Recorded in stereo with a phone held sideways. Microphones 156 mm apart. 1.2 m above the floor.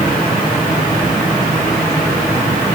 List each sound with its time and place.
Only background noise.